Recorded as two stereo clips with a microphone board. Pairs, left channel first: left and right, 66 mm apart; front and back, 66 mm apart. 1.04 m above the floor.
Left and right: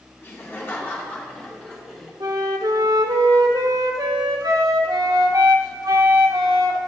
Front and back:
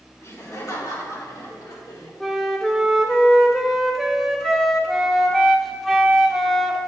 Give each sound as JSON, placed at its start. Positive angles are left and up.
{"t": 0.2, "sound": "laughter", "azimuth_deg": 40, "distance_m": 3.5}
{"t": 2.2, "sound": "a flute", "azimuth_deg": -85, "distance_m": 1.0}